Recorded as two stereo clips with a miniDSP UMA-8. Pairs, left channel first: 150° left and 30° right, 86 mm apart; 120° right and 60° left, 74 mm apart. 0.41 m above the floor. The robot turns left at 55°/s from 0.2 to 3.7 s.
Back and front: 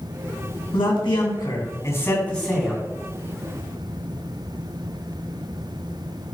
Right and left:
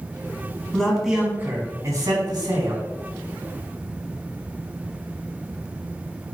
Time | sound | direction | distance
0.7 | a man speaking | 165° left | 3.5 m